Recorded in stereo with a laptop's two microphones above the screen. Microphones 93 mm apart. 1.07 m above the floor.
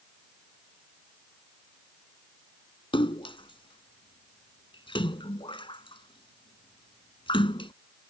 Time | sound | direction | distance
2.9 | a splash | 65° left (ahead or behind) | ?